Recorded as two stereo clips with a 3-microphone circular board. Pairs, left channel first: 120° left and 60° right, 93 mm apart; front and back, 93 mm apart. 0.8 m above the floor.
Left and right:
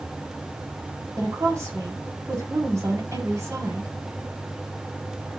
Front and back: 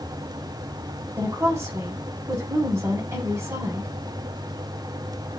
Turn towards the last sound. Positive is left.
turn(degrees=-120)